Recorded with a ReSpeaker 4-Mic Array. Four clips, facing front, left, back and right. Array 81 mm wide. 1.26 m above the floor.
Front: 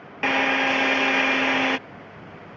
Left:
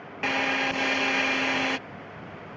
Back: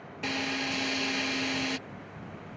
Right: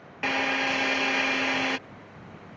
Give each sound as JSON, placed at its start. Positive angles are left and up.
{"t": 0.2, "sound": "a drill", "azimuth_deg": 0}